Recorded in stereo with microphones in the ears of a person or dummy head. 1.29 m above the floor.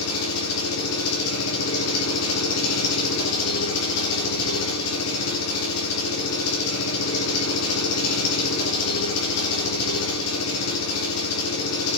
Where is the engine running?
90° left, 3.5 m.